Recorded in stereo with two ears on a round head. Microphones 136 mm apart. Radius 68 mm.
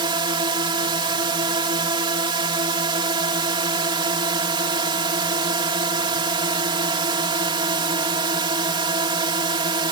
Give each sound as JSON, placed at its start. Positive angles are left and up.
{"t": 0.0, "sound": "a drone", "side_deg": -30}